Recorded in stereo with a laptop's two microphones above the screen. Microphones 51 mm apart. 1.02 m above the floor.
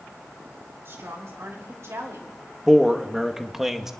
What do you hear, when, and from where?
0.8 s a woman speaking: 55° right (ahead or behind), 4 m; by 2.3 s 70° right (ahead or behind), 2 m
2.7 s a man speaking: 5° right (ahead or behind), 1.1 m